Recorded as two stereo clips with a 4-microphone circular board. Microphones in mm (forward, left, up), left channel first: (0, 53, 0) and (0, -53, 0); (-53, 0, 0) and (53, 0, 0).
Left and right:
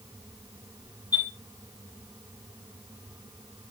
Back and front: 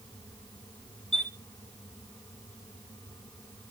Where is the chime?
35° left, 10 m.